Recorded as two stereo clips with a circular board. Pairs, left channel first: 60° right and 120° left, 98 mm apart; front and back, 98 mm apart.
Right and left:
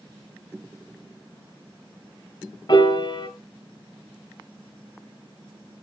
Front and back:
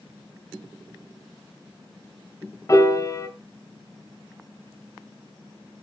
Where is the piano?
50° right, 1.7 m.